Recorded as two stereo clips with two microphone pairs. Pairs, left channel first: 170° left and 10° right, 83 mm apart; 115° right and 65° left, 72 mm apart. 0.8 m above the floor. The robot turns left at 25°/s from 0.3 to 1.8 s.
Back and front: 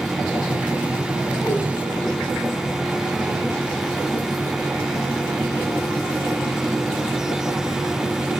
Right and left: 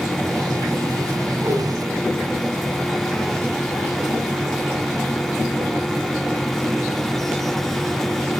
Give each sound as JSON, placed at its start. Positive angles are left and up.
{"t": 1.4, "sound": "a whoosh", "azimuth_deg": 115, "distance_m": 2.0}